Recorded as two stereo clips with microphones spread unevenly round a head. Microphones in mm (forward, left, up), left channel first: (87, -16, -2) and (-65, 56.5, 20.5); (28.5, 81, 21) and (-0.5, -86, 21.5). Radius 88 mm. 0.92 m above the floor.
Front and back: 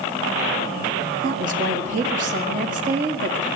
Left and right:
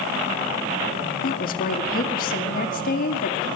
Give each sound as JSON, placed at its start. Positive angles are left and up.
{"t": 1.2, "sound": "a woman speaking", "azimuth_deg": 115, "distance_m": 1.7}